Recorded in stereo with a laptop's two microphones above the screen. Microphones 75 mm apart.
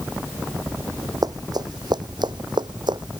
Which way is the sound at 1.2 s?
55° right (ahead or behind).